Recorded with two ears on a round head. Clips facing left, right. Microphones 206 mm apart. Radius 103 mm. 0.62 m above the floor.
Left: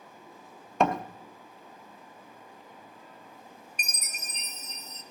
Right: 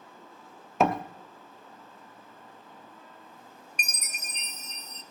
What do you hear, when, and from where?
0.8 s a door slam: centre (ahead or behind), 0.7 m
3.8 s a chime: 50° right (ahead or behind), 0.7 m